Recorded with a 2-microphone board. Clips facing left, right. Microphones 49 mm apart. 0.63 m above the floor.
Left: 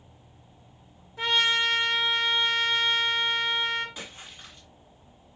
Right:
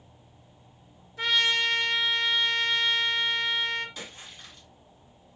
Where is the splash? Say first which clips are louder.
Left 1 dB; 25° left (ahead or behind), 1.7 m.